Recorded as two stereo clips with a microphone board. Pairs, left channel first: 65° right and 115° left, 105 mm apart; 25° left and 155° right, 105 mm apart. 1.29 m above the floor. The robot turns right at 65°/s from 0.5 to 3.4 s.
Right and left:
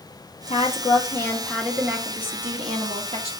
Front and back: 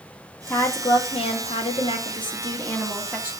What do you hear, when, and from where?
0.5 s a woman speaking: 50° right, 2 m; by 3.3 s 135° left, 2 m